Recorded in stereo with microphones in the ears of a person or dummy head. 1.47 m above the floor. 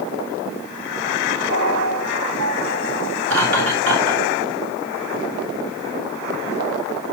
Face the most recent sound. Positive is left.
turn(degrees=-80)